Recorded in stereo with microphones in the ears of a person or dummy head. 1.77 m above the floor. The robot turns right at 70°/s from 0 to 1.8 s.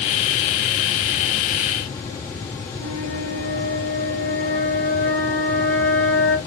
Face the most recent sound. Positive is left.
turn(degrees=5)  # may be behind; listen again after turning